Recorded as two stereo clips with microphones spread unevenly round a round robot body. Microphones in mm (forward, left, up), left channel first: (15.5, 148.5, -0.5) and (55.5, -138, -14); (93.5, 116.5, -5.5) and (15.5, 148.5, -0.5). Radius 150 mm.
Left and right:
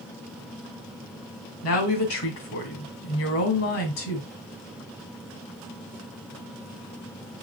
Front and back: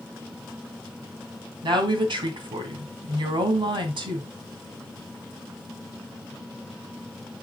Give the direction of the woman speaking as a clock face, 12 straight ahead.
7 o'clock.